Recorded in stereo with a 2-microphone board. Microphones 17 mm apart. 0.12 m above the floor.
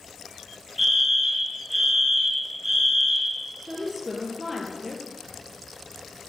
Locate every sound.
0.8 s a fire alarm: 15° right (ahead or behind), 3 m
3.6 s a woman speaking: centre (ahead or behind), 2.5 m